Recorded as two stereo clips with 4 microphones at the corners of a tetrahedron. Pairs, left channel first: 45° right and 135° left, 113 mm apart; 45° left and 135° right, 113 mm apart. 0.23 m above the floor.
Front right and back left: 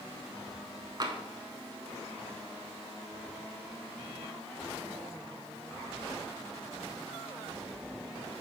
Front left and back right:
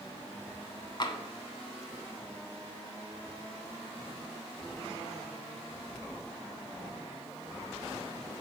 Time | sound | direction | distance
1.0 | tapping | 90° left | 0.6 m